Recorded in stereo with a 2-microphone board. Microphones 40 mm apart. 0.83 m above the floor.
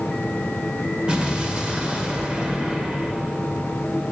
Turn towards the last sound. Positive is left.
turn(degrees=-20)  # may be behind; listen again after turning